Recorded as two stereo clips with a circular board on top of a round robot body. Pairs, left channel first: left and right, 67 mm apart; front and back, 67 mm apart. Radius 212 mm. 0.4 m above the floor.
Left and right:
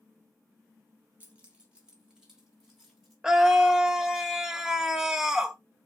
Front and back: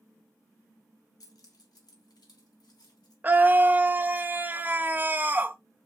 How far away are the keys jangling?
About 1.6 m.